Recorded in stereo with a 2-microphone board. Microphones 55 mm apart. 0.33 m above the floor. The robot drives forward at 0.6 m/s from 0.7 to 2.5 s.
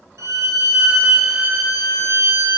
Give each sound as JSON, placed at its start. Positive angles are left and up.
{"t": 0.2, "sound": "a violin", "side_deg": -80, "distance_m": 1.1}